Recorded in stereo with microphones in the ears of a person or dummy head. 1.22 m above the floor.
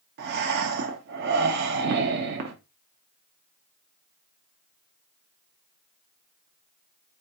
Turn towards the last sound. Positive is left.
turn(degrees=-55)  # may be behind; listen again after turning